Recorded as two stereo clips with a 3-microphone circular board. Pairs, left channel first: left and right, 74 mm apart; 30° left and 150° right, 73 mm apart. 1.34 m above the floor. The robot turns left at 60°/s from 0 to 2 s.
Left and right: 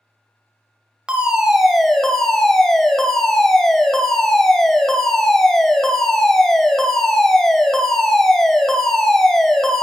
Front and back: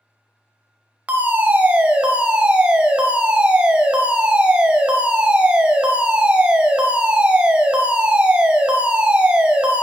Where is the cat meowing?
No cat meowing in this recording.